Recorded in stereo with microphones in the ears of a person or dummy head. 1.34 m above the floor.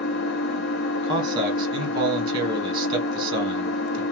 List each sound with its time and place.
0.0 s an engine running: 65° left (ahead or behind), 0.7 m
1.0 s a man speaking: 20° right (ahead or behind), 1.5 m